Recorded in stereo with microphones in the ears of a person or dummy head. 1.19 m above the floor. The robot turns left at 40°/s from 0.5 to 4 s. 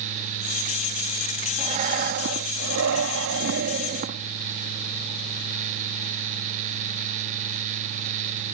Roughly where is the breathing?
Ahead right.